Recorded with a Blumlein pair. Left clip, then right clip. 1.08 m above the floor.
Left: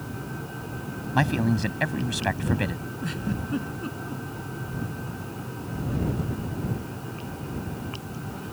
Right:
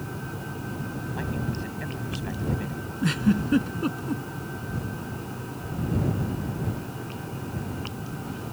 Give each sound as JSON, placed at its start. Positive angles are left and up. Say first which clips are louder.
{"t": 1.1, "sound": "a man speaking", "louder": "left 11 dB", "azimuth_deg": 55}
{"t": 3.0, "sound": "a giggle", "louder": "right 8 dB", "azimuth_deg": -70}